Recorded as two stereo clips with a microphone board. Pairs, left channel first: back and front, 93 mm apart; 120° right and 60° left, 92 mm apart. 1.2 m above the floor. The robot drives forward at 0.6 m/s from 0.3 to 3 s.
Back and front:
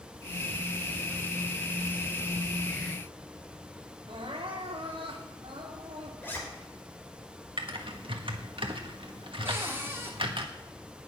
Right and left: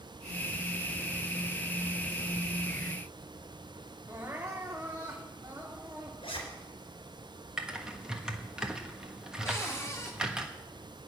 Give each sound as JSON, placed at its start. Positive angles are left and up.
{"t": 4.1, "sound": "crying", "azimuth_deg": -5, "distance_m": 2.5}
{"t": 6.2, "sound": "a zipper", "azimuth_deg": -110, "distance_m": 4.0}
{"t": 7.6, "sound": "typing on a keyboard", "azimuth_deg": -20, "distance_m": 1.5}
{"t": 9.4, "sound": "a cupboard door", "azimuth_deg": -65, "distance_m": 2.5}